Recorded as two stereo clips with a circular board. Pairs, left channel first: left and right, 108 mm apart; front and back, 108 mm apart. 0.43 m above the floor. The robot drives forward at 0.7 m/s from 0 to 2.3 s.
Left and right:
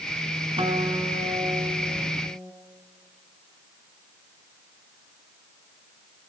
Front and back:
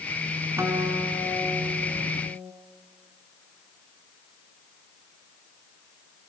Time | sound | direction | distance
0.6 | a guitar | 120° right | 3.5 m